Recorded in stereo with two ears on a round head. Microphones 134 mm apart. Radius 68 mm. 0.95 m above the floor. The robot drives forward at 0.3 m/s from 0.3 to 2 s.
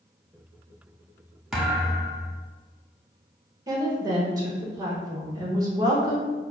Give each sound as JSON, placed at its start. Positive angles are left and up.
{"t": 1.5, "sound": "a thud", "side_deg": -5, "distance_m": 0.6}
{"t": 3.7, "sound": "a woman speaking", "side_deg": -25, "distance_m": 0.9}